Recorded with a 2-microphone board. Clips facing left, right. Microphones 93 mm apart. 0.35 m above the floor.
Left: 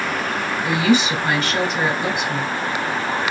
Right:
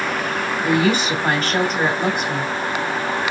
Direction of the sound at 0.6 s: 45° right (ahead or behind).